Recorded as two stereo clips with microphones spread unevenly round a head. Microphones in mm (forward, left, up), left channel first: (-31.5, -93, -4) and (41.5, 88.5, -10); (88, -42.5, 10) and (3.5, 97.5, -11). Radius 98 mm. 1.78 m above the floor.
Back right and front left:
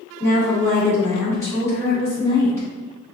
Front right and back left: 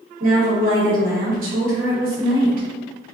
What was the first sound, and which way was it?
A woman speaking, 170° left.